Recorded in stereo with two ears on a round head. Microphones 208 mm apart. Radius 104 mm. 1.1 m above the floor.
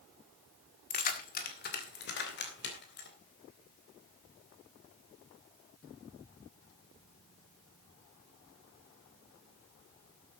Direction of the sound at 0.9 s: 35° left (ahead or behind).